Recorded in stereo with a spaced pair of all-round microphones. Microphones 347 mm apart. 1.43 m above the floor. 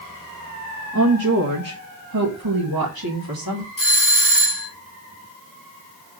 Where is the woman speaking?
50° right (ahead or behind), 1.6 m; by 3.7 s 80° right, 2.5 m.